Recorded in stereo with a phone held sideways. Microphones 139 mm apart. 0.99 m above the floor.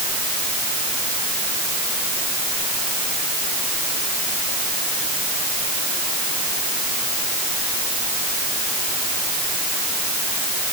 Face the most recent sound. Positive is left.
No sound to turn to.